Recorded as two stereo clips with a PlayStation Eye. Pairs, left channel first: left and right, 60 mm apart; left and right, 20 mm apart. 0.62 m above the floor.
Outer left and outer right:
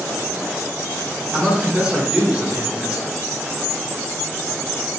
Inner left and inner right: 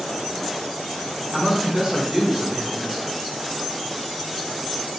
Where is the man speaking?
20° right (ahead or behind), 1.7 m.